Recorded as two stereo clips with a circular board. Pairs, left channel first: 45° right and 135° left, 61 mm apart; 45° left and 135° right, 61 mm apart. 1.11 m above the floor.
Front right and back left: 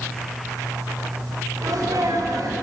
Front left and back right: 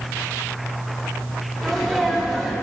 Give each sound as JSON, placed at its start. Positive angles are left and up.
{"t": 1.6, "sound": "a sneeze", "azimuth_deg": 130, "distance_m": 3.5}